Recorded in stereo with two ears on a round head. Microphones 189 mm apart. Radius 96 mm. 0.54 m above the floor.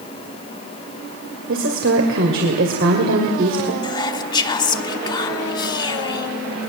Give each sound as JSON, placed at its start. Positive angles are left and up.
{"t": 1.5, "sound": "a woman speaking", "side_deg": -65, "distance_m": 2.5}
{"t": 3.8, "sound": "whispering", "side_deg": 20, "distance_m": 1.1}